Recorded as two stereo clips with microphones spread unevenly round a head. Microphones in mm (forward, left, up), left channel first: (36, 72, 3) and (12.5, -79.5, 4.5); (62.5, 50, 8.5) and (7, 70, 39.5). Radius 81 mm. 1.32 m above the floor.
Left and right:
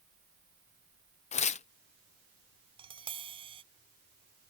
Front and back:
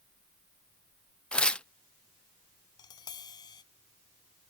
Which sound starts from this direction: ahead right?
Tapping, at 2.8 s.